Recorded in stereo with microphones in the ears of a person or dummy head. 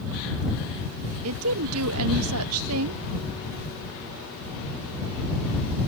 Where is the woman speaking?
70° right (ahead or behind).